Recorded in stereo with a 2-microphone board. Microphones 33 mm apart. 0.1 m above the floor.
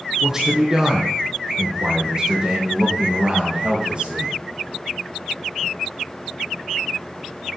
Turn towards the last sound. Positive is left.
turn(degrees=-35)  # may be behind; listen again after turning